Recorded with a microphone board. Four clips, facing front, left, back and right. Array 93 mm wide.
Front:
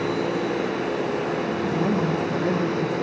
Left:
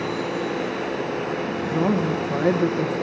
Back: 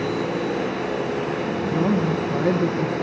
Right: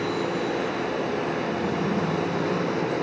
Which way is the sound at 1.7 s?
110° left.